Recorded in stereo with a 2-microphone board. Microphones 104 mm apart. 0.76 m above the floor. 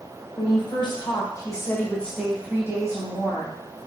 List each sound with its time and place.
0.4 s a woman speaking: 50° left (ahead or behind), 1.5 m; by 3.5 s 50° right (ahead or behind), 1.1 m